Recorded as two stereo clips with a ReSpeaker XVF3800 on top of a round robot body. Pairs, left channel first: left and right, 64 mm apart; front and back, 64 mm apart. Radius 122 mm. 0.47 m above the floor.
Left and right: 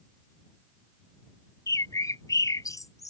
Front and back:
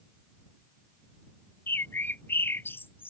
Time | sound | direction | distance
1.7 | a bird | 60° left | ?